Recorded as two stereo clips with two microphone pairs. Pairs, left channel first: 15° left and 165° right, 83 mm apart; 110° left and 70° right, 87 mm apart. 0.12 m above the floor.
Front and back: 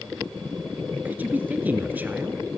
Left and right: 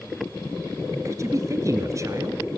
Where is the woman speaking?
105° right, 1.7 m.